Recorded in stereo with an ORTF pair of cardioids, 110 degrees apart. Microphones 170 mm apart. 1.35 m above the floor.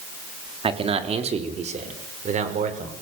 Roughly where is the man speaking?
Ahead right.